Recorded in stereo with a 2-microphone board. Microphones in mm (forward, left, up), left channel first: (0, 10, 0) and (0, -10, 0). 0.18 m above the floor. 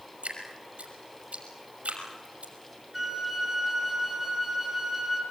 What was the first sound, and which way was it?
Dripping, 75° right (ahead or behind).